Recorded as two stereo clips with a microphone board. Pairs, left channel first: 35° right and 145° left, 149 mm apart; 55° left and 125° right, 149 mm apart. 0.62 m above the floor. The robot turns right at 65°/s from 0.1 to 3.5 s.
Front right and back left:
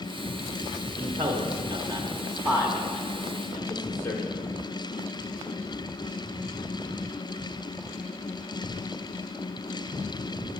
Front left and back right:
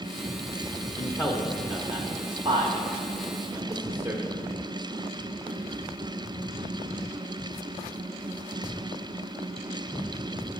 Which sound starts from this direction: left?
A man speaking, at 1.0 s.